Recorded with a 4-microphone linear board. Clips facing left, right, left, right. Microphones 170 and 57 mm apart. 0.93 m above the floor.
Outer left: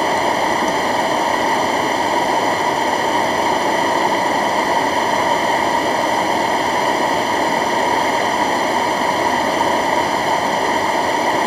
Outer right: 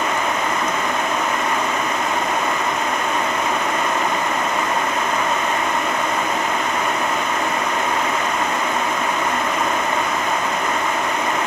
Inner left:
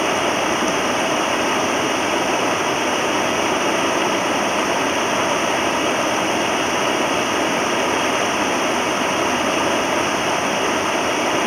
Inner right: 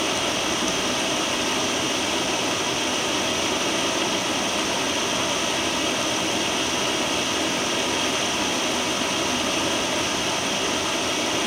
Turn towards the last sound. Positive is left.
turn(degrees=35)  # may be behind; listen again after turning